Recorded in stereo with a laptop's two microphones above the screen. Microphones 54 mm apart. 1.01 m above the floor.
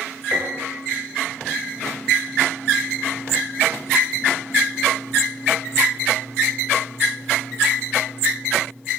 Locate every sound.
0.3 s a piano: 35° right (ahead or behind), 9 m